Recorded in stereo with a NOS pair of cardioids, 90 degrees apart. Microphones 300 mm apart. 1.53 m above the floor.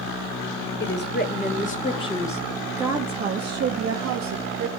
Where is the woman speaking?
40° left, 1.5 m; by 4.7 s 75° right, 1.1 m.